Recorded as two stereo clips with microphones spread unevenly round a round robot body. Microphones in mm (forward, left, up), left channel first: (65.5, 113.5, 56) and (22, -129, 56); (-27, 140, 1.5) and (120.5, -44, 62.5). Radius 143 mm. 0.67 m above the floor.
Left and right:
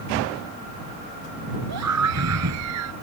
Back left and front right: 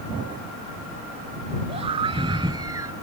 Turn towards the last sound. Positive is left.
turn(degrees=-130)